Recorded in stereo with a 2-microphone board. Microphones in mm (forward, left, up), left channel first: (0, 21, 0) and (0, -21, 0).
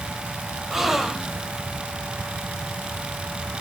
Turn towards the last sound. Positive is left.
turn(degrees=-10)  # may be behind; listen again after turning